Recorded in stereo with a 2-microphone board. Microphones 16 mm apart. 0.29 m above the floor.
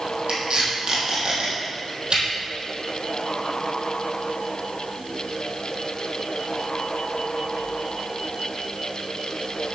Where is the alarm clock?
No alarm clock in this recording.